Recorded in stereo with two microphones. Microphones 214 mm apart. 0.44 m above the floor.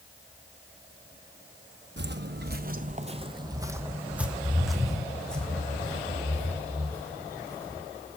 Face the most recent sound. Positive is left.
turn(degrees=10)  # may be behind; listen again after turning